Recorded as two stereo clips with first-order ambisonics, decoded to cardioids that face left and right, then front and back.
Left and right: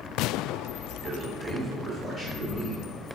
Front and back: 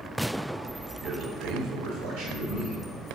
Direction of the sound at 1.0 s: 135° right.